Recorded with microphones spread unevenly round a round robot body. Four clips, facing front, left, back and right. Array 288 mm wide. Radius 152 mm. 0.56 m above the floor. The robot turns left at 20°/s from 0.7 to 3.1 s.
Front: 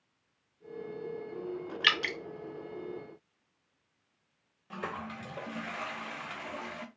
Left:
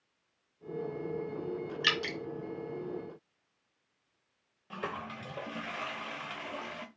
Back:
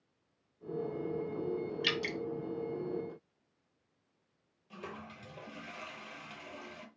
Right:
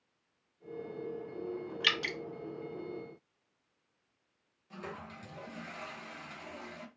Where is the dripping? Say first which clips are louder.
Left 2 dB, front 3 dB; straight ahead, 0.9 m; by 2.2 s 5° right, 0.9 m.